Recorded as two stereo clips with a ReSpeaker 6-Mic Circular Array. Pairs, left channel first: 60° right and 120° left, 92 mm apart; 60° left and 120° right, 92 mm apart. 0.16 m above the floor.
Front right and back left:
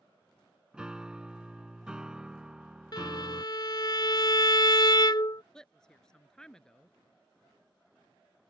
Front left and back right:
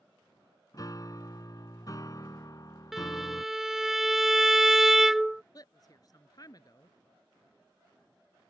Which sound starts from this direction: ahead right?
A violin, at 2.9 s.